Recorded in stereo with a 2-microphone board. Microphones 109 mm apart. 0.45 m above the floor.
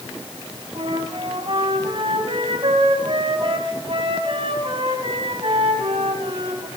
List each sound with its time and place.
0.8 s a flute: 55° right (ahead or behind), 2.5 m